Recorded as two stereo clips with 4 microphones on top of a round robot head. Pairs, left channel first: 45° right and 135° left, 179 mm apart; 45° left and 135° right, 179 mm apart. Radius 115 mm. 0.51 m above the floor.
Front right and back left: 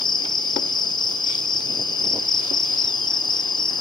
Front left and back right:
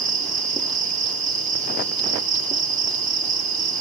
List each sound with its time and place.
0.0 s an insect: 105° right, 3 m